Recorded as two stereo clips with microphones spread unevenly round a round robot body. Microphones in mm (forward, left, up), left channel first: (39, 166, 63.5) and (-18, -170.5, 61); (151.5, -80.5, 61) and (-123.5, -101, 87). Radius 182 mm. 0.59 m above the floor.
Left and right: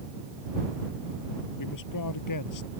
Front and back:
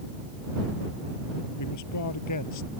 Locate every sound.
1.6 s a man speaking: 45° left; by 2.7 s 40° left